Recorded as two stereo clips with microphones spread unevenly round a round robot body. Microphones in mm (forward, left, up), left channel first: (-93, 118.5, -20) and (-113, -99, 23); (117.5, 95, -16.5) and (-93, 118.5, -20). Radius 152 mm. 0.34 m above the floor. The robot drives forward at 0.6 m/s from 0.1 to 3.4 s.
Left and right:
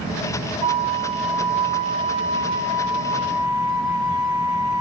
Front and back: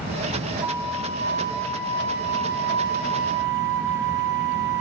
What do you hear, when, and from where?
0.6 s a flute: 135° right, 1.0 m; by 4.8 s 170° right, 2 m